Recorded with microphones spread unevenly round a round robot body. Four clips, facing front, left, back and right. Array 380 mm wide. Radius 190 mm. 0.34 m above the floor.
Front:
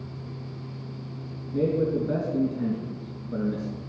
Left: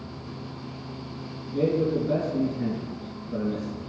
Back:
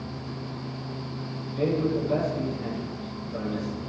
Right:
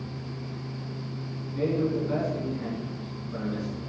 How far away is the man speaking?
About 4 m.